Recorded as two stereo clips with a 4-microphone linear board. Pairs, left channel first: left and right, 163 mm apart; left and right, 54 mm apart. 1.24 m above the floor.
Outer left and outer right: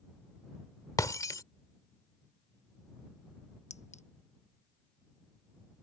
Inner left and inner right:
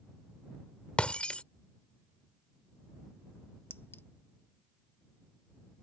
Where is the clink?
45° left (ahead or behind).